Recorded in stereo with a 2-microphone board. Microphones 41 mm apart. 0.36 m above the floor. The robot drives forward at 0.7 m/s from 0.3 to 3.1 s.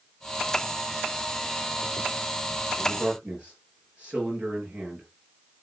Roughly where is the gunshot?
I don't hear a gunshot.